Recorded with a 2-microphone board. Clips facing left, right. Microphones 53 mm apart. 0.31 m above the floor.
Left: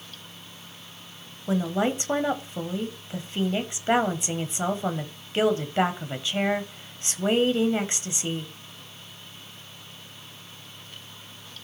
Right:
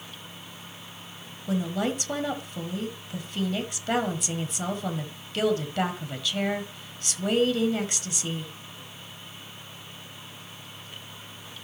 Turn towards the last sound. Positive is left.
turn(degrees=25)  # may be behind; listen again after turning